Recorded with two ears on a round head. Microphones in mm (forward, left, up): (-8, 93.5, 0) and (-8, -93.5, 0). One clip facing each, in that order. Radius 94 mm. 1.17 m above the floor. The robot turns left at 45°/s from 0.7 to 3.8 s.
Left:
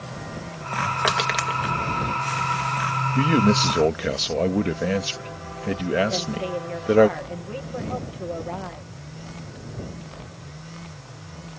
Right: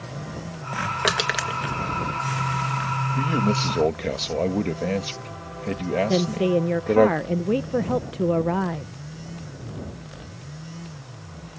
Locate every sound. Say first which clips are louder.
1.0 s crushing: right 1 dB; 25° right (ahead or behind); by 1.6 s centre (ahead or behind)
3.1 s a man speaking: left 5 dB; 35° left (ahead or behind); by 7.1 s 10° left (ahead or behind)
6.1 s a woman speaking: right 7 dB; 65° right (ahead or behind)